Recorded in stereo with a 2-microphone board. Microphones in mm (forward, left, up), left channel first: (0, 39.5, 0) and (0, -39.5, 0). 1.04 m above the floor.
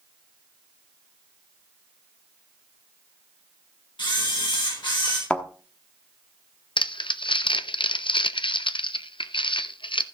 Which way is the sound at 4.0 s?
70° left (ahead or behind).